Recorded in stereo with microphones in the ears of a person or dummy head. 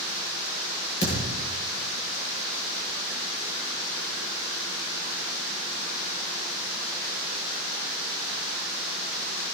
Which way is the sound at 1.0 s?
35° left (ahead or behind).